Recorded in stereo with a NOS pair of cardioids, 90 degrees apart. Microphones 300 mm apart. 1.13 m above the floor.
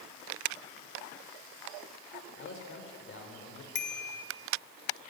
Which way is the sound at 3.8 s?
35° left.